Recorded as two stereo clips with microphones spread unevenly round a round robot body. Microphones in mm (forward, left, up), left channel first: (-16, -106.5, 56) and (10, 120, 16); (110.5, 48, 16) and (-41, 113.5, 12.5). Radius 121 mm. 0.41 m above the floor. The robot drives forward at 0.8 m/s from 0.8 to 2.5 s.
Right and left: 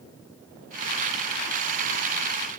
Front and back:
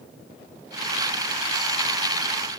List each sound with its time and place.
Only background noise.